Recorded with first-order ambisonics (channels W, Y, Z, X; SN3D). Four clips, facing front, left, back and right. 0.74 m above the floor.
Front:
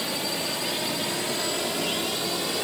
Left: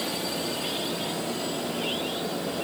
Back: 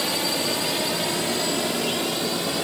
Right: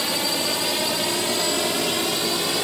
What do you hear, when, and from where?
0.0 s a drone: 115° right; by 2.6 s 90° right